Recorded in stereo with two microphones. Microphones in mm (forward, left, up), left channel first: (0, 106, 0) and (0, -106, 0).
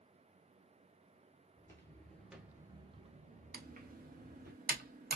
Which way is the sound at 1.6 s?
15° left (ahead or behind).